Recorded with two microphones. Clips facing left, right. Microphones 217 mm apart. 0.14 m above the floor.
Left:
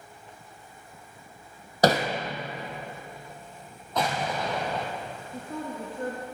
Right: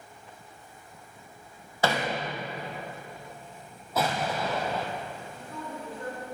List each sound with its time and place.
1.8 s hammering: 45° left (ahead or behind), 1.4 m
4.0 s an explosion: 5° right (ahead or behind), 2 m
5.3 s a woman speaking: 55° left (ahead or behind), 2 m